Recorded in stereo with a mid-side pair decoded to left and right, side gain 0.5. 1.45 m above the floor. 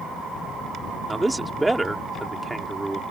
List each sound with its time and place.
1.1 s a man speaking: 10° right